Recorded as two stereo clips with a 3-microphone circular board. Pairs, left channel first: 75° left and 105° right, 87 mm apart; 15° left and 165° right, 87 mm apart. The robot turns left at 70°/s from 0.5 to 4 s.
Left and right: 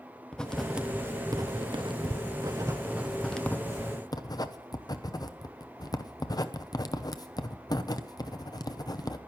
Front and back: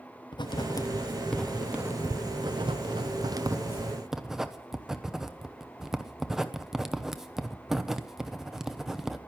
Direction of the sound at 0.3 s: 5° right.